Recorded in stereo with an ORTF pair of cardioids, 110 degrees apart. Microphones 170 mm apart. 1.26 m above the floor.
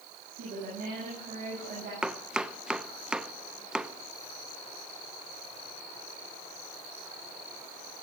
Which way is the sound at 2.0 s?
5° right.